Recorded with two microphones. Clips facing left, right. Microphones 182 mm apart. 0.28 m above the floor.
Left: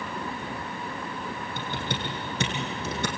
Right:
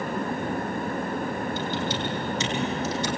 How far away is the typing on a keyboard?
About 3.5 m.